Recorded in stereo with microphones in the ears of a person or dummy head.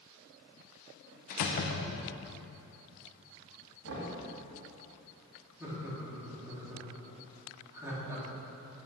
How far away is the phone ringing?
No phone ringing in this recording.